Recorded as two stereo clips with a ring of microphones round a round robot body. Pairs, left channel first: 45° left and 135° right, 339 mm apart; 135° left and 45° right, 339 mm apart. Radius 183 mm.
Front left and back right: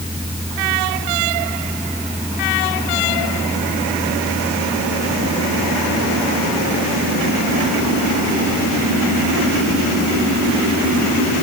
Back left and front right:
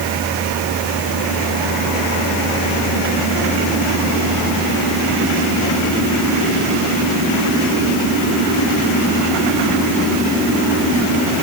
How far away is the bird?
No bird in this recording.